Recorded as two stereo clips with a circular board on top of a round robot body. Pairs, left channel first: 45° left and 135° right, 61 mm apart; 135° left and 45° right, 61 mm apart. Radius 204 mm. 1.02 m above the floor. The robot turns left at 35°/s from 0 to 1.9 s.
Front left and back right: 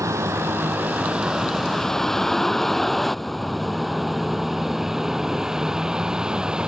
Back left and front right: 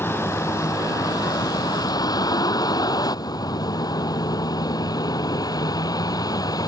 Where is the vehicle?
170° right; by 6.7 s 150° left.